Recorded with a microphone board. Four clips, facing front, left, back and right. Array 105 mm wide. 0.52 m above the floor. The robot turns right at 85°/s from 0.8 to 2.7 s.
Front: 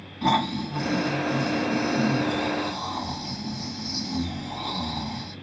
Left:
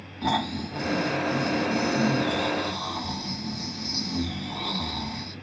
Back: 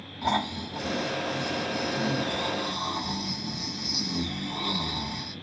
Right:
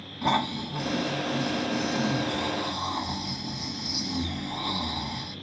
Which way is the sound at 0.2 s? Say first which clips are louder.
Even, front 5 dB; 20° right.